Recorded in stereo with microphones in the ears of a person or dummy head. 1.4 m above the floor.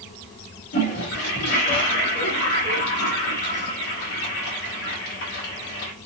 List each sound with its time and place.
0.7 s a toilet flushing: 60° left (ahead or behind), 1.9 m